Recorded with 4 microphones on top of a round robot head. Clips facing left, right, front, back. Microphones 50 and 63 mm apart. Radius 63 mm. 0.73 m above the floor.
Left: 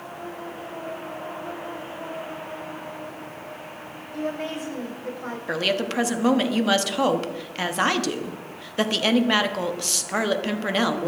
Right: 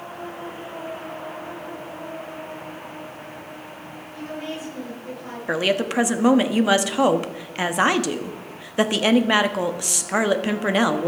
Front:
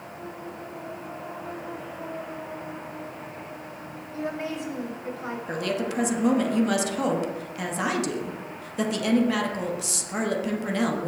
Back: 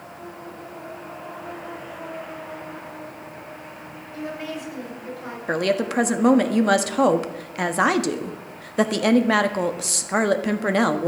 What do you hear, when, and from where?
4.1 s a woman speaking: 60° left, 5 m
5.5 s a woman speaking: 160° right, 1.3 m